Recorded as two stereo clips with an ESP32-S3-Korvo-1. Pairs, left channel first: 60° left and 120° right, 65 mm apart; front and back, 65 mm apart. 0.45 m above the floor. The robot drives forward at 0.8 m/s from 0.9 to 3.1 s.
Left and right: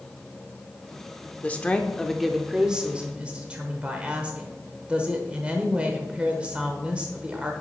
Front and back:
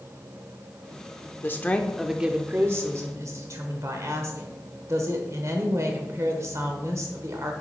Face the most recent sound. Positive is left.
turn(degrees=175)